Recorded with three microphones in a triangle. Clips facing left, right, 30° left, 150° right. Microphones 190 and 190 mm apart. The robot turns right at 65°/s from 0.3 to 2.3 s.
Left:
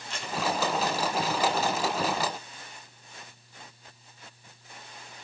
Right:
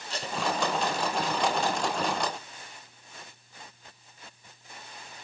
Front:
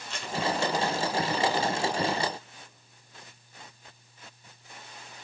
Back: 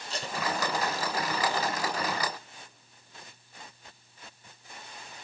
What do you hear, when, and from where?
0.1 s tape being pulled: 120° right, 1.1 m; by 0.4 s 115° right, 1.1 m